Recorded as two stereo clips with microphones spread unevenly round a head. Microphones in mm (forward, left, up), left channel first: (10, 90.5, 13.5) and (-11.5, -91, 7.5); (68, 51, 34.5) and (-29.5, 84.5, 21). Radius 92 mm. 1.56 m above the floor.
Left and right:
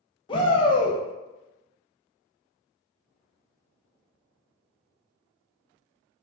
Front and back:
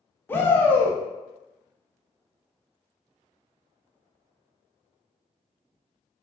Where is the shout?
35° left, 0.6 m.